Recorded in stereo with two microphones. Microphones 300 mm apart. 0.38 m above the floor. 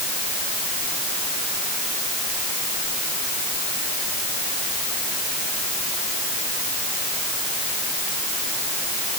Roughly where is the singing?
No singing in this recording.